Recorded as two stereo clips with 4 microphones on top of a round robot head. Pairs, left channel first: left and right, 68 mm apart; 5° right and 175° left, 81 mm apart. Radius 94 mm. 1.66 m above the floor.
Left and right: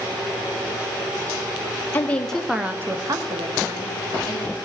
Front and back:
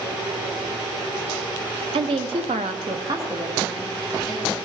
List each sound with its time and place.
1.9 s a woman speaking: 155° left, 0.8 m; by 4.5 s 90° right, 1.5 m